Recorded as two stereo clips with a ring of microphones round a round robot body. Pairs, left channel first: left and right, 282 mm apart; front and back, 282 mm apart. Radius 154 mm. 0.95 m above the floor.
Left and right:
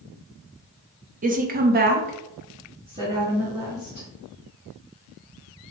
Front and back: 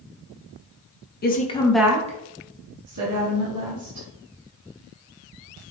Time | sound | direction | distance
1.2 | a woman speaking | 40° right | 0.8 m